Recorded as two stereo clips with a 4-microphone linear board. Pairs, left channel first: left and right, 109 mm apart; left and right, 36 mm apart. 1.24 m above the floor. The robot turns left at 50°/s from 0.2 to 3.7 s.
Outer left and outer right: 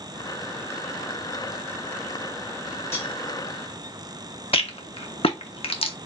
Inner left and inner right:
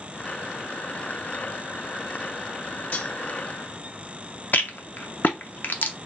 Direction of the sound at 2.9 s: 70° left (ahead or behind).